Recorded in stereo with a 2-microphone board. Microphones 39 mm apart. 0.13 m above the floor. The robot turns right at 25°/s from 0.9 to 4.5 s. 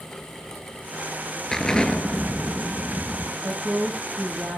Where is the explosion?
15° left, 1.0 m; by 3.3 s 60° left, 1.0 m.